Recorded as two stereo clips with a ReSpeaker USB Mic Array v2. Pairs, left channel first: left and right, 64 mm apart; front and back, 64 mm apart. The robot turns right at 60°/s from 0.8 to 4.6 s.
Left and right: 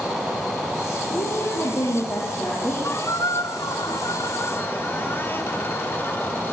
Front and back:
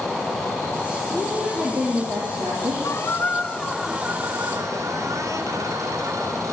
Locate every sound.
1.1 s a woman speaking: 90° left, 8.5 m; by 2.7 s 170° right, 8.5 m
2.8 s a squeak: 35° left, 2.5 m; by 6.5 s 140° left, 2.5 m